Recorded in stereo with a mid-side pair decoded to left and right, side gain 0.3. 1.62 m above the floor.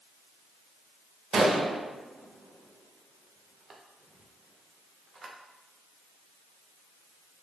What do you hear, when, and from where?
1.3 s a gunshot: 55° right, 0.7 m